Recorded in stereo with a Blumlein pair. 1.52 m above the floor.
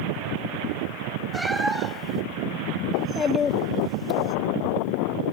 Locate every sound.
1.3 s a cat meowing: 10° right, 3.5 m
2.9 s a child speaking: 20° left, 1.7 m